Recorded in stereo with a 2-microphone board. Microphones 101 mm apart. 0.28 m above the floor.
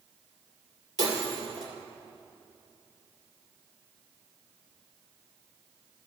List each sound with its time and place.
1.0 s breaking glass: 40° left (ahead or behind), 2.5 m